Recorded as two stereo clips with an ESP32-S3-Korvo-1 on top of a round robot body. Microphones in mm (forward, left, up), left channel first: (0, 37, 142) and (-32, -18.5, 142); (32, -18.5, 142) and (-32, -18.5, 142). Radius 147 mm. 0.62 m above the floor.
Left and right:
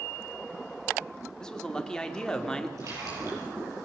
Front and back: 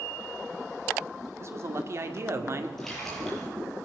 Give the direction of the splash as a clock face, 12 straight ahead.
3 o'clock.